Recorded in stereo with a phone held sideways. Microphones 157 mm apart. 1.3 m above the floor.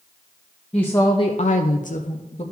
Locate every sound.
0.7 s a woman speaking: 10° left (ahead or behind), 0.8 m; by 2.4 s 40° left (ahead or behind), 1.0 m